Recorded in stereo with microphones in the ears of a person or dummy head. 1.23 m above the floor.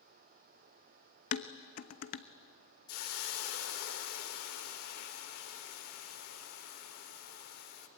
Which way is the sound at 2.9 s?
65° left (ahead or behind).